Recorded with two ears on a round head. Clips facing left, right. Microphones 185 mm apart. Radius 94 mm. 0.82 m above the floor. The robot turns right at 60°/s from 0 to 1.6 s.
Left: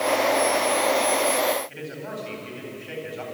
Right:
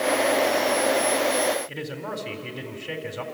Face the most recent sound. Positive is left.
turn(degrees=-55)  # may be behind; listen again after turning